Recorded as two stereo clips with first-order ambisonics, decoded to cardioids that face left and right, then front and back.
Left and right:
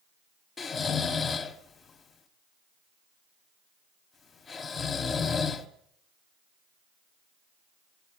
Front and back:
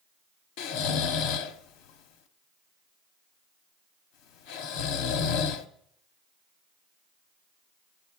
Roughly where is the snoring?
Ahead.